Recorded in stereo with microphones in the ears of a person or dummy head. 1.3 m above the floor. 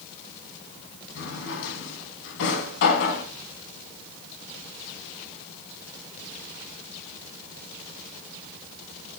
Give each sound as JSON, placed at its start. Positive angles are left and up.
{"t": 1.1, "sound": "a drawer", "side_deg": 75, "distance_m": 3.5}